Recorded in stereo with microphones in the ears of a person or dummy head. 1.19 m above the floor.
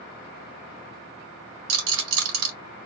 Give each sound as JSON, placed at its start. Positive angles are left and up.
{"t": 1.7, "sound": "a rattle", "side_deg": -70, "distance_m": 2.5}